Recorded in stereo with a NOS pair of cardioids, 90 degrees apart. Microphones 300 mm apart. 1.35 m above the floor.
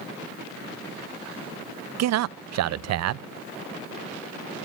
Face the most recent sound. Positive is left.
turn(degrees=-60)